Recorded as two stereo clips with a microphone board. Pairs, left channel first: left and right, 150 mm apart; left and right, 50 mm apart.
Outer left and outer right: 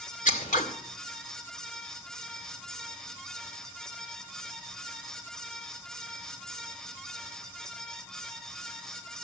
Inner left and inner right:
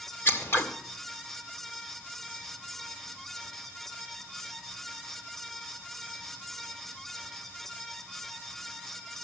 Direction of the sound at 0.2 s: 55° left (ahead or behind).